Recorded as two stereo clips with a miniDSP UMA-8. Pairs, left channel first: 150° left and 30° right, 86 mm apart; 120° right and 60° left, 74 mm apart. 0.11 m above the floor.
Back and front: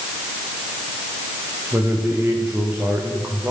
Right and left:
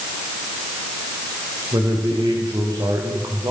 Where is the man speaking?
35° left, 8.5 m.